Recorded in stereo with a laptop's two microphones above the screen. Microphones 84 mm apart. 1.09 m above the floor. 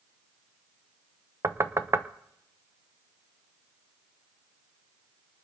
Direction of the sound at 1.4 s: 35° right (ahead or behind).